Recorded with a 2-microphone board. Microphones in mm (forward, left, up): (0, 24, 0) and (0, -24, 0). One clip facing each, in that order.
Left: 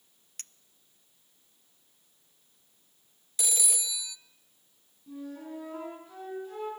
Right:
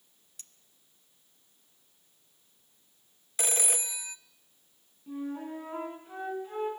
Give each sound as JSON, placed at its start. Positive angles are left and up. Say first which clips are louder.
{"t": 0.4, "sound": "a clink", "louder": "left 7 dB", "side_deg": 60, "distance_m": 0.5}
{"t": 3.4, "sound": "a phone ringing", "louder": "right 2 dB", "side_deg": -40, "distance_m": 0.6}
{"t": 5.1, "sound": "a flute", "louder": "right 4 dB", "side_deg": -35, "distance_m": 9.5}